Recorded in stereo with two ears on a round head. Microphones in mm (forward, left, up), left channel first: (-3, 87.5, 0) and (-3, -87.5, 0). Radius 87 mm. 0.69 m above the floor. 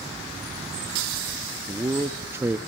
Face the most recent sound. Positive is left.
turn(degrees=-15)  # may be behind; listen again after turning